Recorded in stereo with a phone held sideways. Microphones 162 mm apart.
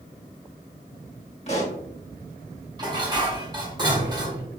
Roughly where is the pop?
Left.